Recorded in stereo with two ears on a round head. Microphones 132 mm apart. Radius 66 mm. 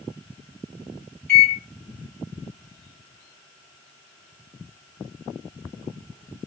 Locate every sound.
1.3 s a microwave: 15° left (ahead or behind), 1.5 m